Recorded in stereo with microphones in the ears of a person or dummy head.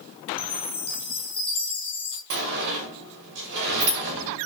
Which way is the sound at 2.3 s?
60° right (ahead or behind).